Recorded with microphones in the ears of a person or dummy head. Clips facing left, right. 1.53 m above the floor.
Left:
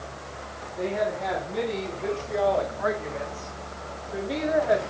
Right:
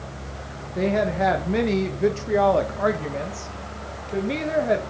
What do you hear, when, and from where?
0.8 s a woman speaking: 85° right, 1.8 m; by 4.8 s 30° right (ahead or behind), 2.5 m